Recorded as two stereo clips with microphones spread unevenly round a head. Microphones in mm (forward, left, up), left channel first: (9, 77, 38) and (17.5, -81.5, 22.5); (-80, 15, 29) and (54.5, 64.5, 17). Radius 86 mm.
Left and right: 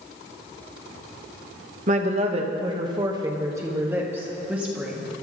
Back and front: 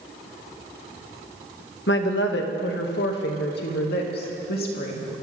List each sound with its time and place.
1.9 s a woman speaking: 135° right, 1.5 m; by 5.1 s 170° right, 3 m